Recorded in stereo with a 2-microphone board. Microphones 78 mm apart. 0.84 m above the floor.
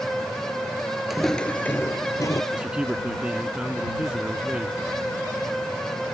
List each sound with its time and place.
1.1 s footsteps: 5° right (ahead or behind); by 2.4 s 40° left (ahead or behind)
2.5 s a man speaking: 10° right (ahead or behind)